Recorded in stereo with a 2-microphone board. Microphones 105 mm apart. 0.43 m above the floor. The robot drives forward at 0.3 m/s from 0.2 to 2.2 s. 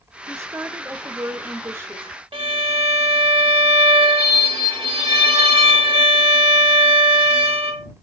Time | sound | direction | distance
0.3 | a woman speaking | 25° right (ahead or behind) | 0.9 m
2.3 | a violin | 60° right (ahead or behind) | 1.2 m